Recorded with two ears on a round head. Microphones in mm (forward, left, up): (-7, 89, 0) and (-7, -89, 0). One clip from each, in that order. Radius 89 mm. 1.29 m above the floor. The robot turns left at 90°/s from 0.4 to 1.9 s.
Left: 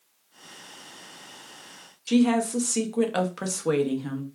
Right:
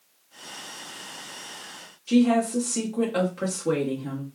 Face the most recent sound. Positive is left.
turn(degrees=55)  # may be behind; listen again after turning